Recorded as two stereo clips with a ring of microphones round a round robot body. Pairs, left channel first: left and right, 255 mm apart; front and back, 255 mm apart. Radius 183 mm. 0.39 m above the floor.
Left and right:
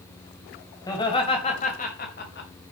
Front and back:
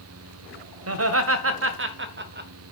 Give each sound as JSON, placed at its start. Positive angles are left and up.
{"t": 0.9, "sound": "laughter", "azimuth_deg": 170, "distance_m": 1.8}